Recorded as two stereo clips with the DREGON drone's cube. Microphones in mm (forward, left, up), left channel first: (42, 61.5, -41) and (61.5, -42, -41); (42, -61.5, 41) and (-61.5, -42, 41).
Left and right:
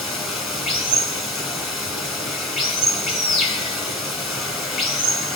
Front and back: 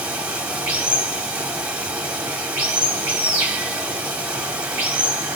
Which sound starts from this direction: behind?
Running water, at 0.0 s.